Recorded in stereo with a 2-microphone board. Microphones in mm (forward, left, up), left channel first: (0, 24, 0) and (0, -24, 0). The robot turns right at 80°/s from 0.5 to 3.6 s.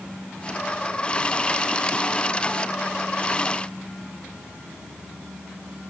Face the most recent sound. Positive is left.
No sound to turn to.